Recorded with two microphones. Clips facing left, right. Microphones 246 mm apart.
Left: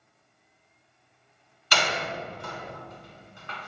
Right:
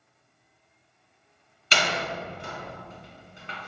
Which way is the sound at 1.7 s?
25° right (ahead or behind).